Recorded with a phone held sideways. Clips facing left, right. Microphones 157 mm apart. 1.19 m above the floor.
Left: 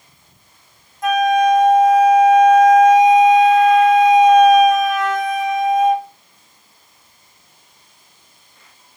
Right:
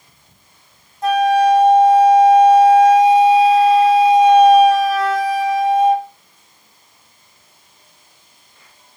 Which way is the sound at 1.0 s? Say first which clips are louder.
Right 1 dB; 30° right (ahead or behind).